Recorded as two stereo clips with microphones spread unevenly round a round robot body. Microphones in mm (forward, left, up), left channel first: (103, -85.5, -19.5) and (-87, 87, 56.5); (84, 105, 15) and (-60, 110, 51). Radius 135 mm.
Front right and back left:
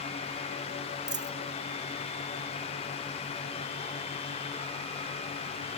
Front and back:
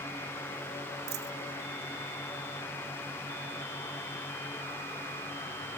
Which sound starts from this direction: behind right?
A dropped coin, at 1.1 s.